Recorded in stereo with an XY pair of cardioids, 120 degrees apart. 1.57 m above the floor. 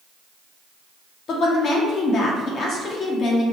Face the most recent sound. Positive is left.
turn(degrees=60)